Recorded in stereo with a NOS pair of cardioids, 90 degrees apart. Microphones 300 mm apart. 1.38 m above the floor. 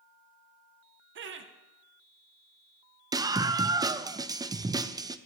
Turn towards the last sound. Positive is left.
turn(degrees=-15)